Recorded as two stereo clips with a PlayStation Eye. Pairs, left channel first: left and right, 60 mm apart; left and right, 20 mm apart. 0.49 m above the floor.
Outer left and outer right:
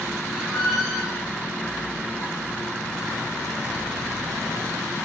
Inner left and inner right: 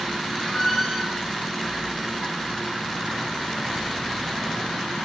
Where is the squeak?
Centre (ahead or behind), 0.7 m.